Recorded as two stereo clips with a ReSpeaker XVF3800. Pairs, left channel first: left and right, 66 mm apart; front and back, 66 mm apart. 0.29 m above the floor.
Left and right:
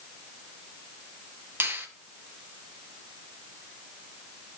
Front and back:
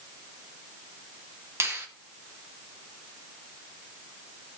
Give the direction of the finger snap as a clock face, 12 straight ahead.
5 o'clock.